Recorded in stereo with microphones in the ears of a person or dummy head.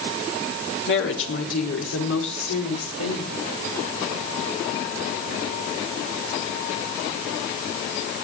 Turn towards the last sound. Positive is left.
turn(degrees=80)